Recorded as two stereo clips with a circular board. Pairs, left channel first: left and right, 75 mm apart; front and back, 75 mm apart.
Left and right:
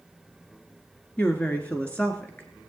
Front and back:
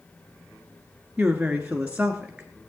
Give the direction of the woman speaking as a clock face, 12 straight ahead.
8 o'clock.